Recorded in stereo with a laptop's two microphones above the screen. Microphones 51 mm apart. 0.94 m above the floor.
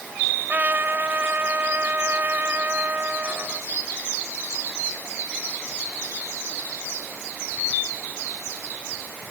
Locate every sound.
0.5 s a trumpet: 35° right (ahead or behind)